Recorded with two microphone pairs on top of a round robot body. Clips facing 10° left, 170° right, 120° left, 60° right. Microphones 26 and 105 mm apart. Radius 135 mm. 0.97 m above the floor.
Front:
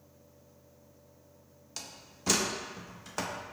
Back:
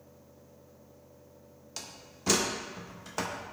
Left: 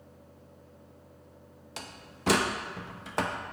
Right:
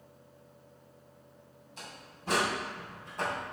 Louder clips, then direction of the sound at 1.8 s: Back 1 dB, left 3 dB; 105° left.